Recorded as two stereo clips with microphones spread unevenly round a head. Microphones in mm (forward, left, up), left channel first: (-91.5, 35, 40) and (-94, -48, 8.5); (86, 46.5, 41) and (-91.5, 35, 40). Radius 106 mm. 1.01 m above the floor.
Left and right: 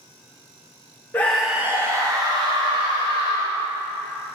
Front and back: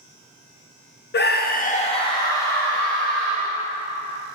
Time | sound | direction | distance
1.1 | a scream | straight ahead | 0.7 m